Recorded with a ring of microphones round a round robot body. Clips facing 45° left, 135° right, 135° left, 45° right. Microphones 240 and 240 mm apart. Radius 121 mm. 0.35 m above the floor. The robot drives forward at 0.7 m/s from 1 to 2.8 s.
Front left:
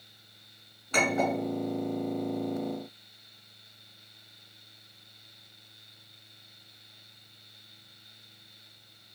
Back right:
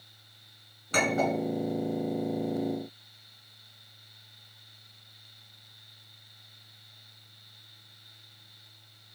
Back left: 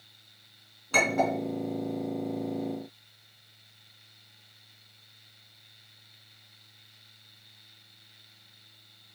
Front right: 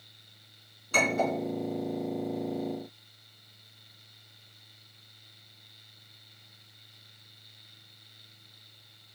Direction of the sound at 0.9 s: 170° left.